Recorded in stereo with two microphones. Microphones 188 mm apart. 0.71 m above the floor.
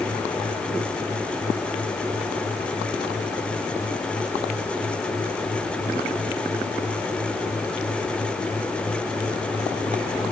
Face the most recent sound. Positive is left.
No sound to turn to.